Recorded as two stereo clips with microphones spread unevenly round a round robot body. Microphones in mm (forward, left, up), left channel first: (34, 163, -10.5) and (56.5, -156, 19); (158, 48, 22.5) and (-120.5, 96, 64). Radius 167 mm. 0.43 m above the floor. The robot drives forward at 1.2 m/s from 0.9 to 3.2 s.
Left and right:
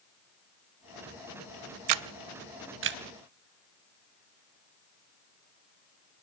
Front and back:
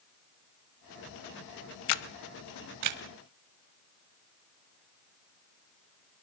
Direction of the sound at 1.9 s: 45° right.